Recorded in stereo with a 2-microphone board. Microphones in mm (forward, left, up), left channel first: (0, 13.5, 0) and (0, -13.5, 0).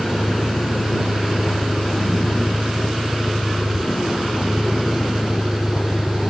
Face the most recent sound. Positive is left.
turn(degrees=60)  # may be behind; listen again after turning